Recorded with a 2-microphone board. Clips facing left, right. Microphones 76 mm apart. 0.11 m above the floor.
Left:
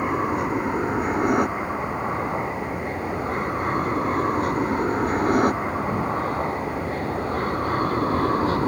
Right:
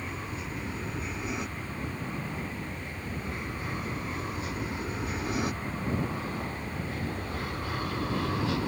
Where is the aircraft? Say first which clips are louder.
Left 15 dB; 60° left (ahead or behind); by 8.7 s 40° left (ahead or behind).